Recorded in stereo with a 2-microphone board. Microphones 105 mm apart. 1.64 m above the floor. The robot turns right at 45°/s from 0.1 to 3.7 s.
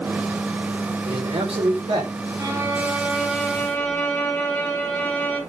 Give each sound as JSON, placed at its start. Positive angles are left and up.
{"t": 1.1, "sound": "a man speaking", "azimuth_deg": -125, "distance_m": 5.5}
{"t": 2.4, "sound": "a violin", "azimuth_deg": -45, "distance_m": 4.5}